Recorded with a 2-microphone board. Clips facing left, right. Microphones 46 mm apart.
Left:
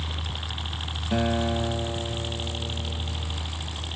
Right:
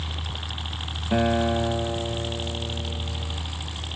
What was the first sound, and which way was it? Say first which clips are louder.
A helicopter: even; centre (ahead or behind).